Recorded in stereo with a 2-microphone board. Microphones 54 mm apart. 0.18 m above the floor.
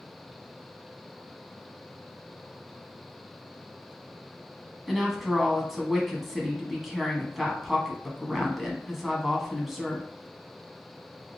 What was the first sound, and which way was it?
A woman speaking, 5° right (ahead or behind).